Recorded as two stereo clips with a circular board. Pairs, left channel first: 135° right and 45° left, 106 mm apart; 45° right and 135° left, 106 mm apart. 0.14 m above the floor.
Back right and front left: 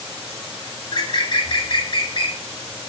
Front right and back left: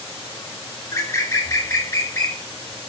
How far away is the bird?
About 0.5 m.